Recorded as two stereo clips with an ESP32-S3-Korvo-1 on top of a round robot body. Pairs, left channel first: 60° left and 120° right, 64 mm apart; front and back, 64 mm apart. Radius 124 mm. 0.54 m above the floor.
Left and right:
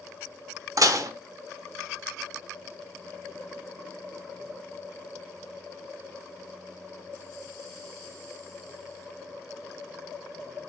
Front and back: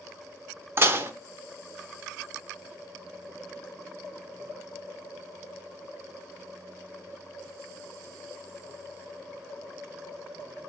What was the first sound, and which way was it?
Dishes clattering, 130° right.